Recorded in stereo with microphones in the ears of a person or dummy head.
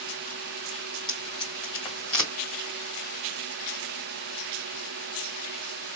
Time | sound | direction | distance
1.1 | tape being pulled | 20° left (ahead or behind) | 1.9 m